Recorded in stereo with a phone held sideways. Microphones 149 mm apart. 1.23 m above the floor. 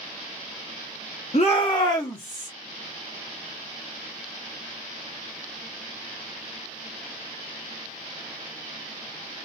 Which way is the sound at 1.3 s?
45° left (ahead or behind).